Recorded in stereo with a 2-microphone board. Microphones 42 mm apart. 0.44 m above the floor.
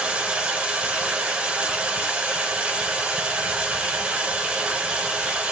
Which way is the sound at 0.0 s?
30° right (ahead or behind).